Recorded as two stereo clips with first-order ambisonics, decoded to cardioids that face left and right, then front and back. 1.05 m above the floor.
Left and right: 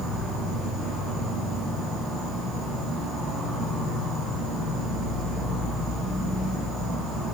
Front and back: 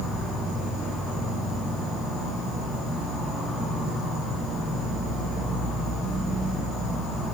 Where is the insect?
135° right, 1.1 m.